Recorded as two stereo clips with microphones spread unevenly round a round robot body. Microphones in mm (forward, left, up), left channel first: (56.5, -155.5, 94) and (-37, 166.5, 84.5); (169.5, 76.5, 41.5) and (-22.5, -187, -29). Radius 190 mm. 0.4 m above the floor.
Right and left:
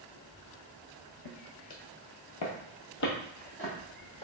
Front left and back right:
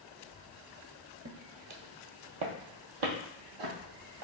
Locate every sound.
1.2 s footsteps: 65° right, 0.8 m; by 4.2 s 150° right, 1.5 m